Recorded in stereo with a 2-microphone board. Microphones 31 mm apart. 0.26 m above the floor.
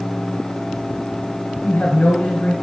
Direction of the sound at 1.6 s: 55° left (ahead or behind).